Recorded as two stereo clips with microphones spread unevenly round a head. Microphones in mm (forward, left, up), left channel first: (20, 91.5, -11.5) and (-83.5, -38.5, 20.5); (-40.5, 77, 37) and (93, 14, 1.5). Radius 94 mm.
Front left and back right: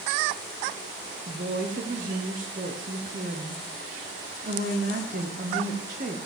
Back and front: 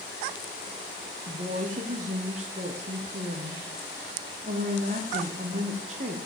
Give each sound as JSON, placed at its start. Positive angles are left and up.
{"t": 1.3, "sound": "a woman speaking", "azimuth_deg": -75, "distance_m": 1.1}